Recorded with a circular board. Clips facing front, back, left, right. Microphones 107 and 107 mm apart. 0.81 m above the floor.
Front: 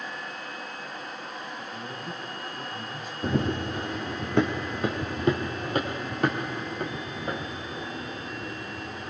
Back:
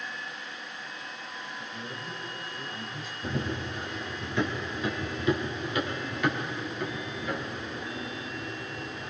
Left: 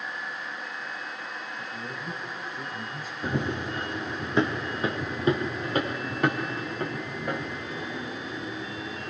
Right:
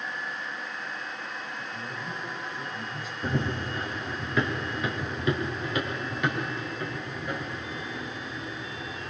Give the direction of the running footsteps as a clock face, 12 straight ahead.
12 o'clock.